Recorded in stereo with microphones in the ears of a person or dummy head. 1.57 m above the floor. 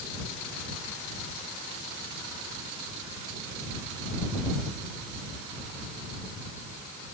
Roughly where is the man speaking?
No man speaking in this recording.